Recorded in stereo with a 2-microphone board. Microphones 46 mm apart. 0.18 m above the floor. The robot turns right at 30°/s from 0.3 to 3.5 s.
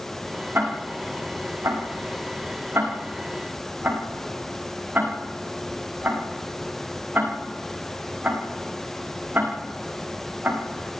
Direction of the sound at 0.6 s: 50° right (ahead or behind).